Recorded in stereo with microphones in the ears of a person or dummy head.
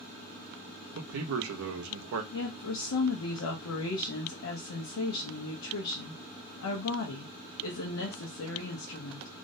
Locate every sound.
0.9 s a man speaking: 70° right (ahead or behind), 0.6 m
2.3 s a woman speaking: 75° left (ahead or behind), 0.6 m